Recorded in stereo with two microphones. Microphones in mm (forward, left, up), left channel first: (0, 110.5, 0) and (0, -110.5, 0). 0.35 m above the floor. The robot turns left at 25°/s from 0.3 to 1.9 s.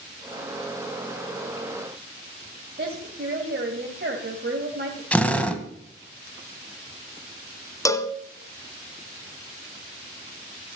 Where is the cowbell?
15° left (ahead or behind), 1.0 m.